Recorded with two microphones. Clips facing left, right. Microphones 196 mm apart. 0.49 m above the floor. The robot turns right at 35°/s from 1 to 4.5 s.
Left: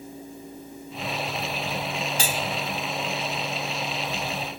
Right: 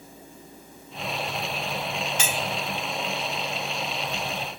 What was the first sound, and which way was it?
Cutlery clinking, 35° left (ahead or behind).